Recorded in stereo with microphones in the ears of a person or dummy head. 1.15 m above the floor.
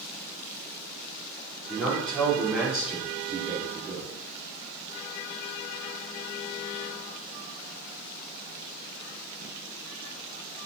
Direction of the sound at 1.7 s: 10° left (ahead or behind).